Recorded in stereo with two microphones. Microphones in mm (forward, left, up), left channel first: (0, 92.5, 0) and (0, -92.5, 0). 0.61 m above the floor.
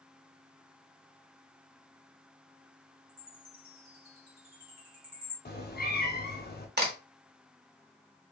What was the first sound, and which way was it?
A chime, 50° right (ahead or behind).